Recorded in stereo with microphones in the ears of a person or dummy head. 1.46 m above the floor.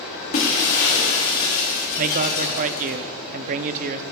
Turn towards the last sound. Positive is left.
turn(degrees=-45)  # may be behind; listen again after turning